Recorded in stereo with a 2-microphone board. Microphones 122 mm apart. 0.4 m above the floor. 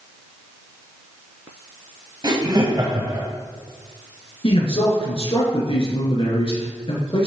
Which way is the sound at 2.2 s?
35° right (ahead or behind).